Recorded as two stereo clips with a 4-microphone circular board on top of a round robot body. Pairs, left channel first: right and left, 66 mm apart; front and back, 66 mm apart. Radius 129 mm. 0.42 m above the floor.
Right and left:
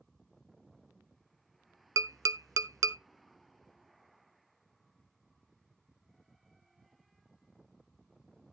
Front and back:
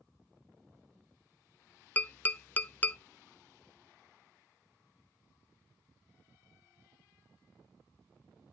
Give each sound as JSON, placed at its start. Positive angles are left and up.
{"t": 2.0, "sound": "tapping", "azimuth_deg": 65, "distance_m": 0.8}